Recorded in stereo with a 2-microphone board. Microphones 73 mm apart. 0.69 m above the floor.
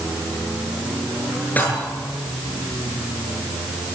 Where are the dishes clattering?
25° left (ahead or behind), 8 m.